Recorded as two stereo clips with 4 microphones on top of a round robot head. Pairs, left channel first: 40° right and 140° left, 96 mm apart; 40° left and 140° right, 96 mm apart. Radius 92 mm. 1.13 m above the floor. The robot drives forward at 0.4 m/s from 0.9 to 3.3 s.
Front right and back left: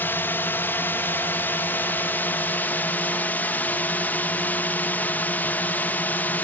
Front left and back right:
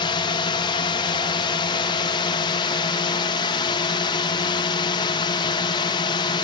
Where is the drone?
25° left.